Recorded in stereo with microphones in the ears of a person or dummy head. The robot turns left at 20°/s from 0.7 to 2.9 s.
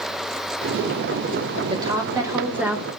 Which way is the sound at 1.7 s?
25° right (ahead or behind).